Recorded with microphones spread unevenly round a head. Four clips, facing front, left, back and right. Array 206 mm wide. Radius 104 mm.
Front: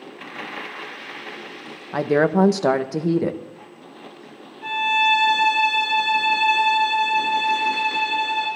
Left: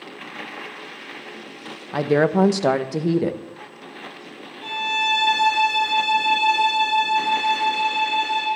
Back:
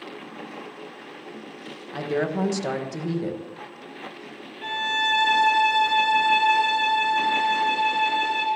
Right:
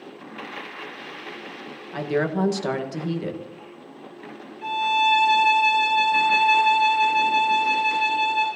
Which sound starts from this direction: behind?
A violin, at 4.6 s.